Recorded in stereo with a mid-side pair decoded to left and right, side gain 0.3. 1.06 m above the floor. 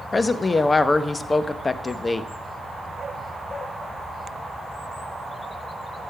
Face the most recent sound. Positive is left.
turn(degrees=40)